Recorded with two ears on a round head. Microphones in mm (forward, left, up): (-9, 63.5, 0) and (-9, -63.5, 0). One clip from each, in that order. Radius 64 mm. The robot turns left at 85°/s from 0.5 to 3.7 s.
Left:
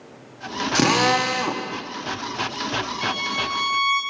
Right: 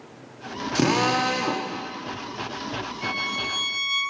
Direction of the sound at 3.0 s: 105° left.